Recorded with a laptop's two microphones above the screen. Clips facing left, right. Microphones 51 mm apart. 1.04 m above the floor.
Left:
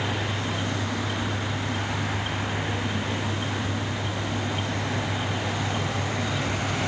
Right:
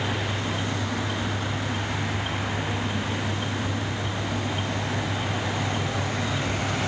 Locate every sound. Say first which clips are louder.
0.0 s a fan: even; 25° left (ahead or behind)